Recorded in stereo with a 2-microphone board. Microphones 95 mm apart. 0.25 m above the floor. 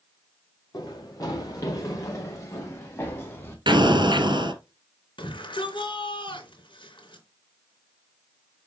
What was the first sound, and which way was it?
Running footsteps, 45° left (ahead or behind).